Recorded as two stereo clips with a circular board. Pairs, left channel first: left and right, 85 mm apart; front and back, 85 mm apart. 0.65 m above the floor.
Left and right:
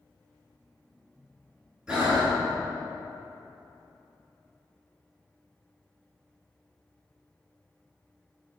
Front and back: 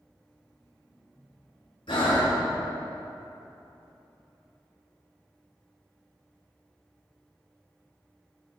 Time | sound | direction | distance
1.9 | breathing | 10° right | 2 m